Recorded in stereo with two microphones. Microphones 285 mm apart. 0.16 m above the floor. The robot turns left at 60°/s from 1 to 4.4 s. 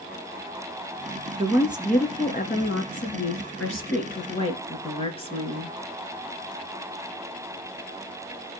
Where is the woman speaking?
155° right, 2.5 m; by 5.7 s 25° left, 2.5 m.